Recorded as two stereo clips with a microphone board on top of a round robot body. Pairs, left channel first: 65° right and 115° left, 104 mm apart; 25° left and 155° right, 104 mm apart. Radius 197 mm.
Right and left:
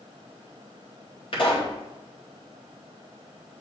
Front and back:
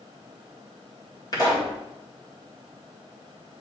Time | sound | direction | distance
1.3 | a pop | 30° right | 2.5 m